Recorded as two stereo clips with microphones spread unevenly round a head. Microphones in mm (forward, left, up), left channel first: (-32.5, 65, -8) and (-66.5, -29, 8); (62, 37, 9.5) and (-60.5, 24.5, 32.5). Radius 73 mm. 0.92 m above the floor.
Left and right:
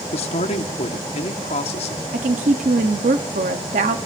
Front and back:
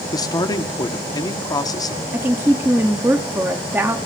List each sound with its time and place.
0.1 s a man speaking: 60° left, 2 m
2.1 s a woman speaking: 95° right, 1.4 m